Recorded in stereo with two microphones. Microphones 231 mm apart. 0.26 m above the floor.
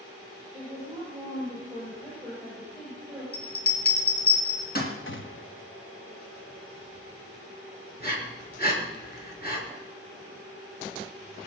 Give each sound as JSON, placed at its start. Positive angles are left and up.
{"t": 0.5, "sound": "a woman speaking", "side_deg": 0, "distance_m": 8.0}
{"t": 3.3, "sound": "a bell", "side_deg": 45, "distance_m": 3.0}
{"t": 5.1, "sound": "a gunshot", "side_deg": 60, "distance_m": 1.0}
{"t": 8.0, "sound": "breathing", "side_deg": 45, "distance_m": 4.5}